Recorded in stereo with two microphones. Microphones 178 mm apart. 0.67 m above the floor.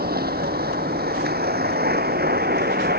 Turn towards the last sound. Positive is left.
turn(degrees=-60)  # may be behind; listen again after turning